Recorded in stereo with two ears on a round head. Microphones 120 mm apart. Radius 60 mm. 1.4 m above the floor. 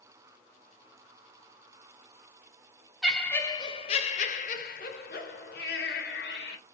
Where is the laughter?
Centre (ahead or behind), 0.6 m; by 6.6 s 80° left, 1.8 m.